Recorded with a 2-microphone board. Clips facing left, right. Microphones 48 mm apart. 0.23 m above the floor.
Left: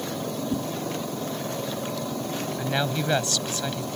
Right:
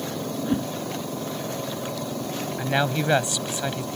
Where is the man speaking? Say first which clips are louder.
Right 4 dB; 20° right (ahead or behind).